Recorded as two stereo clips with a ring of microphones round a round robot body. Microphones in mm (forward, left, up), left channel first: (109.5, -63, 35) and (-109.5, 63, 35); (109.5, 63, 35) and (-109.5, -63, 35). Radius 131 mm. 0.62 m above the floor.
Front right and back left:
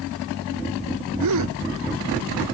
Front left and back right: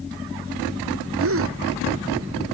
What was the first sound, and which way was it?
A gasp, 170° left.